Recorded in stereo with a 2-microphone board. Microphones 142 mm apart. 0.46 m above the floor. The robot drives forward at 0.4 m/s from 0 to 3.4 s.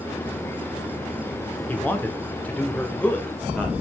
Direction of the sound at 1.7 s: 10° left (ahead or behind).